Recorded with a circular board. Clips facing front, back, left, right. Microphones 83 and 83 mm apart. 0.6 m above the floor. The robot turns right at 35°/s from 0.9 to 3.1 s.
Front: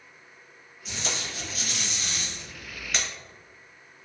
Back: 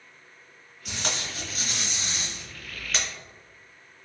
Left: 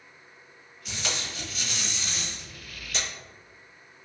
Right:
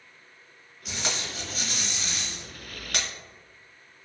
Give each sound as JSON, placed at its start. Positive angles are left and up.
{"t": 0.8, "sound": "tape being pulled", "azimuth_deg": -165, "distance_m": 1.4}